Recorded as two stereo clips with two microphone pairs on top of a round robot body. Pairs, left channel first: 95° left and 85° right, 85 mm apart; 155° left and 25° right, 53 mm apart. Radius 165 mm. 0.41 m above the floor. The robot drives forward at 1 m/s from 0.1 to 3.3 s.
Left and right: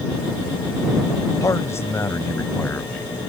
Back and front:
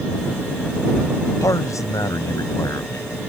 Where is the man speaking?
150° left; by 3.1 s 160° left.